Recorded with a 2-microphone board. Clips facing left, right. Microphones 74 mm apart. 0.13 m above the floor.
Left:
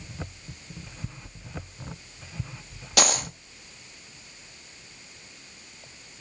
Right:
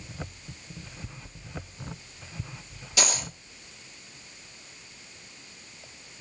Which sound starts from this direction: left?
A dropped coin, at 3.0 s.